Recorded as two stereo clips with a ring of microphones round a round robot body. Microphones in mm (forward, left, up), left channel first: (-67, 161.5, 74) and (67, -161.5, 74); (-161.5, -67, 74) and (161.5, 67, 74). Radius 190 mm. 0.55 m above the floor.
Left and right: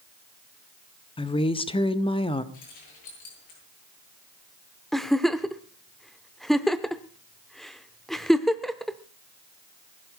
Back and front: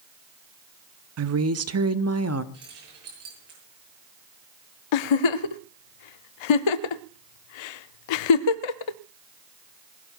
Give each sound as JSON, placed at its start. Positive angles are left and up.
{"t": 1.2, "sound": "a woman speaking", "azimuth_deg": 45, "distance_m": 1.0}
{"t": 2.5, "sound": "keys jangling", "azimuth_deg": 75, "distance_m": 9.5}
{"t": 4.9, "sound": "a giggle", "azimuth_deg": -160, "distance_m": 0.5}